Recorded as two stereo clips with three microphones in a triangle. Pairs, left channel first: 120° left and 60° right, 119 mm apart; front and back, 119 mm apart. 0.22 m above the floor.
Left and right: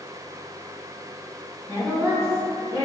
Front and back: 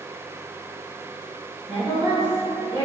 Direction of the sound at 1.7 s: 135° left.